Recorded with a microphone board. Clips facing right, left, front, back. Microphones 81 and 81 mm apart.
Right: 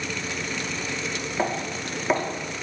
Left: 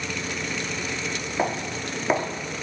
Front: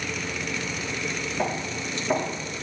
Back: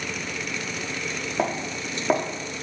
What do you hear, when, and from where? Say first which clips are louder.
1.4 s footsteps: left 1 dB, back 3 dB; 170° left, 6.5 m